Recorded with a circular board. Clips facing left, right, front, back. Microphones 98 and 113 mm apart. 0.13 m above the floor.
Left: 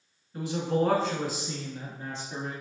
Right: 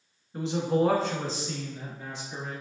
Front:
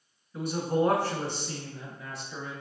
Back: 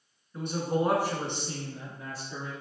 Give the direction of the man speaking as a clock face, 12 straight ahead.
2 o'clock.